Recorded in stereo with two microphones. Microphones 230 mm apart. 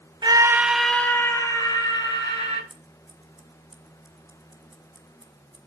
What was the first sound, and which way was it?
A scream, 20° right (ahead or behind).